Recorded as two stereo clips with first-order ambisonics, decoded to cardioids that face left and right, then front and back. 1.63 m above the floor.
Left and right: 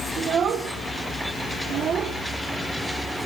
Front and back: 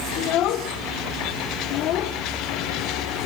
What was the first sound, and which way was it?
A child speaking, 35° right.